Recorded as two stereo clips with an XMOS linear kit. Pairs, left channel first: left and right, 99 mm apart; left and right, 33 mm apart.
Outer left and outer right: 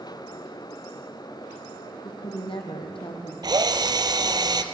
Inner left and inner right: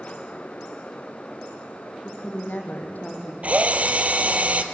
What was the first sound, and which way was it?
A woman speaking, 65° left (ahead or behind).